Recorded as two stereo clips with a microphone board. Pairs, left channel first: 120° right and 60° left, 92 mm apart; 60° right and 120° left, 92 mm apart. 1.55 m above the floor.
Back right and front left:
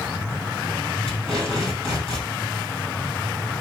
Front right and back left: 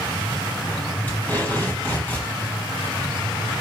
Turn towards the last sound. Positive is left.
turn(degrees=-130)